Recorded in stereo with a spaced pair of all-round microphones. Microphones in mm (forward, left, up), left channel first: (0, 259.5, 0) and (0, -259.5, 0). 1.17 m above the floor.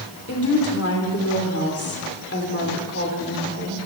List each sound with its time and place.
0.3 s a woman speaking: 25° left (ahead or behind), 3.5 m